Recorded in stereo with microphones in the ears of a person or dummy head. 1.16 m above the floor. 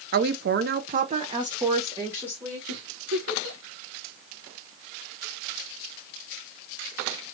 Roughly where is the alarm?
I don't hear an alarm.